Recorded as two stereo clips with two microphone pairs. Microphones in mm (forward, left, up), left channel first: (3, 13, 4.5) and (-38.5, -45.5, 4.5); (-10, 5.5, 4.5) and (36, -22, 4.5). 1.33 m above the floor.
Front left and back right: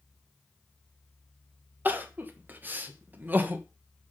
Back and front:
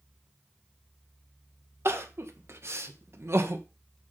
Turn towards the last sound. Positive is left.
turn(degrees=-65)